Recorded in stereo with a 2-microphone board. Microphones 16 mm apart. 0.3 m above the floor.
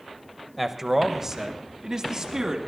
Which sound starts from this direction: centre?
A man speaking, at 0.6 s.